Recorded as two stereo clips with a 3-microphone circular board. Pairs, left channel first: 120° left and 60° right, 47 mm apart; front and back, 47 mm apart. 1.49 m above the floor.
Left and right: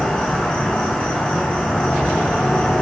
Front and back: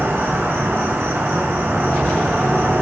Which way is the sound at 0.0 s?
170° right.